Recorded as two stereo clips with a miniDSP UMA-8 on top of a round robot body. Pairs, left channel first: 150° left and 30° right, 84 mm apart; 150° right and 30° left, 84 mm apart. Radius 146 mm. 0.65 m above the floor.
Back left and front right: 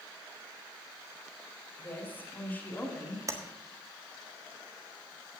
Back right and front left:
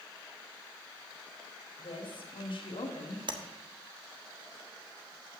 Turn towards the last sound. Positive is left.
turn(degrees=20)